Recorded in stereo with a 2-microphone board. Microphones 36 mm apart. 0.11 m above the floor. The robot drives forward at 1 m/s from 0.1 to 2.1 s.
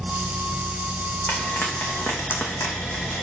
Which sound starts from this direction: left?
Frying, at 1.3 s.